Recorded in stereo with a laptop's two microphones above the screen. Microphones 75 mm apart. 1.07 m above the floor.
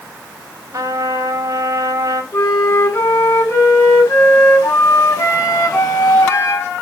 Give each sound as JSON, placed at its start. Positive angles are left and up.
{"t": 0.7, "sound": "a trumpet", "side_deg": -45, "distance_m": 2.5}
{"t": 2.3, "sound": "a flute", "side_deg": 40, "distance_m": 5.0}